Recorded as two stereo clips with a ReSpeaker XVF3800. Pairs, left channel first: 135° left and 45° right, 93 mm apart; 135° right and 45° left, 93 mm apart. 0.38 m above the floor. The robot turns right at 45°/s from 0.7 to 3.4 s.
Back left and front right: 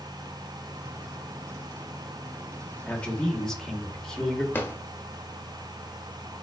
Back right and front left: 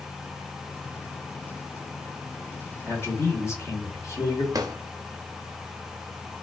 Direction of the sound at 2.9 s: 170° right.